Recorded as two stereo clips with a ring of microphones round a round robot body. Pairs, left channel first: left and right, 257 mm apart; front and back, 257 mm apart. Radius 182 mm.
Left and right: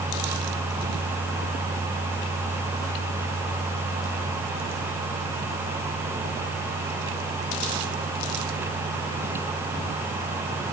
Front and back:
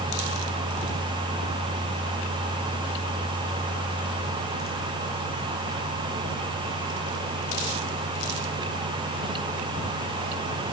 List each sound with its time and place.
Only background noise.